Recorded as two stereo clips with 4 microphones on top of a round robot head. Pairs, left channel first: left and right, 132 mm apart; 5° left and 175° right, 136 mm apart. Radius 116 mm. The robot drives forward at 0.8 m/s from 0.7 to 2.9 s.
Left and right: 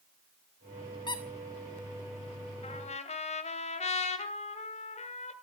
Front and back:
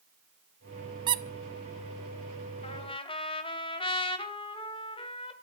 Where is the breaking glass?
No breaking glass in this recording.